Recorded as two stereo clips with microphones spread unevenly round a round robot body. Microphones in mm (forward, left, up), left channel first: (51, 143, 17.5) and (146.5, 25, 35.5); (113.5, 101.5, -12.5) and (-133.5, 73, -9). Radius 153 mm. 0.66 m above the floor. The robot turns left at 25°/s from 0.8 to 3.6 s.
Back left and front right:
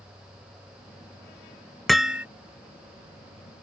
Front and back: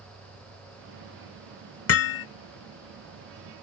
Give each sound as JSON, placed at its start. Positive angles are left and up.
{"t": 0.0, "sound": "an insect", "azimuth_deg": -130}
{"t": 1.9, "sound": "hammering", "azimuth_deg": 40}